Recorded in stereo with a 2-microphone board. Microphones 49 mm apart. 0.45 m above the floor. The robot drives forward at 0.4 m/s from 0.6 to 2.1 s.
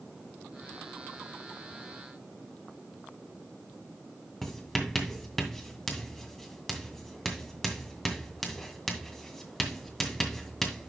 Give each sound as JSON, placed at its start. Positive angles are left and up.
{"t": 4.4, "sound": "writing", "side_deg": 10, "distance_m": 2.0}